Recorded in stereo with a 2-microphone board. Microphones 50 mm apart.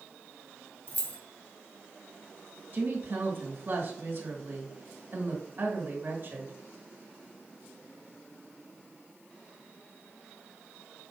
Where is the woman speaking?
50° right (ahead or behind), 1.4 m.